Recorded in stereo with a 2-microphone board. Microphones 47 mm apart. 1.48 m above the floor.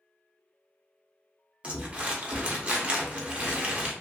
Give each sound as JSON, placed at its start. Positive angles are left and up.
{"t": 1.6, "sound": "crumpling", "side_deg": -25, "distance_m": 0.6}